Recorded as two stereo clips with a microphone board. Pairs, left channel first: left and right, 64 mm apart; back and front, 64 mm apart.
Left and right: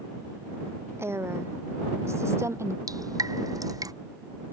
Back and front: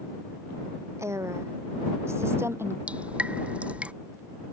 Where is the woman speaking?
45° right; by 2.8 s 50° right.